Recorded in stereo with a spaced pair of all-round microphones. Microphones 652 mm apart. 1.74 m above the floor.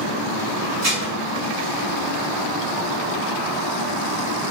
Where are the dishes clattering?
25° right (ahead or behind), 2 m.